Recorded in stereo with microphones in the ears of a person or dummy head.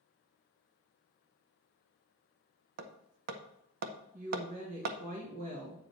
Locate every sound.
2.8 s hammering: 55° right (ahead or behind), 0.7 m
4.1 s a woman speaking: 45° right (ahead or behind), 1.4 m